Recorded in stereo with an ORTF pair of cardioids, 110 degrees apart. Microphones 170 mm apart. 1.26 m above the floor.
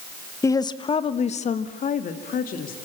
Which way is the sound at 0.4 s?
15° left.